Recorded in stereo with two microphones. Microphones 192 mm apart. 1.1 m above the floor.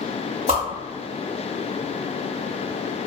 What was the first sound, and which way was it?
A whoosh, 40° right (ahead or behind).